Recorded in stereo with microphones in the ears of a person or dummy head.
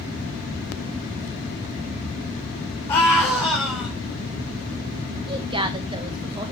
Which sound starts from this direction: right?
A woman speaking, at 5.3 s.